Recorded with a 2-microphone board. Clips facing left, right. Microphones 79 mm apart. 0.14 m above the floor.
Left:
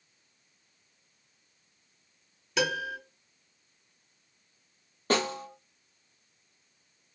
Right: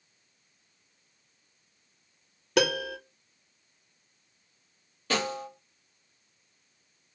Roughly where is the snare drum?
Left.